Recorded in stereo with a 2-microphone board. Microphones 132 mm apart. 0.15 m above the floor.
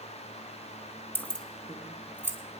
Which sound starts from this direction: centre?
Keys jangling, at 1.1 s.